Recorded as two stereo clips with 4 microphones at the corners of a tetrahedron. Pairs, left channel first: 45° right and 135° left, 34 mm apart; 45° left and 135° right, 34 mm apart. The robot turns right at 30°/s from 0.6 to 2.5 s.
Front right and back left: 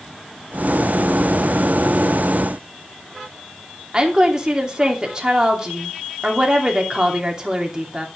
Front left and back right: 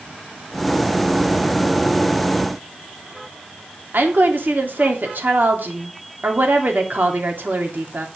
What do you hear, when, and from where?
3.9 s a woman speaking: 155° right, 2.5 m